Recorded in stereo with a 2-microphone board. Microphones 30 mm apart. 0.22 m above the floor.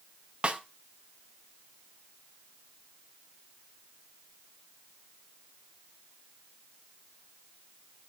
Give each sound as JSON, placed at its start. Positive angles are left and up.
{"t": 0.4, "sound": "a snare drum", "side_deg": -30, "distance_m": 0.7}